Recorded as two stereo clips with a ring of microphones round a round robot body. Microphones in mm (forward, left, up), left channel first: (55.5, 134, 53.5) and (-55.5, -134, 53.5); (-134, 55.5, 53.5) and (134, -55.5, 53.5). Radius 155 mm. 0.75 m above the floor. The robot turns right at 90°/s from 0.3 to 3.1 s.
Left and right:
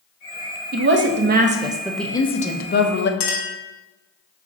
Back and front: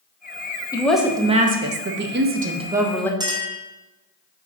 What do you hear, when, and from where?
0.7 s a woman speaking: 135° right, 0.6 m; by 3.1 s 80° left, 0.6 m
3.2 s a clink: 55° left, 1.0 m